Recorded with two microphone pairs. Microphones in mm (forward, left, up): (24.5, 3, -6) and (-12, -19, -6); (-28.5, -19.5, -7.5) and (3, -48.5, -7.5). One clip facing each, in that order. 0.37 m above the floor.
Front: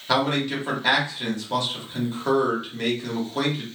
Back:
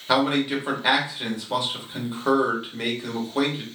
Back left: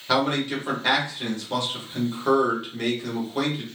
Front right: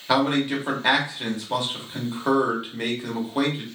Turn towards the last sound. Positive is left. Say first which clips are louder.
# back 1 dB, front right 2 dB
turn(degrees=-90)